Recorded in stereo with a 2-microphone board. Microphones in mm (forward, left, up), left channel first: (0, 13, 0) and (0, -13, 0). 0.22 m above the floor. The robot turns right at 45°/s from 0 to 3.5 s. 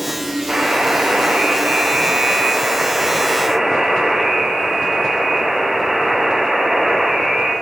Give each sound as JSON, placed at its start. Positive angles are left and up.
{"t": 0.5, "sound": "a buzzer", "azimuth_deg": -145, "distance_m": 6.5}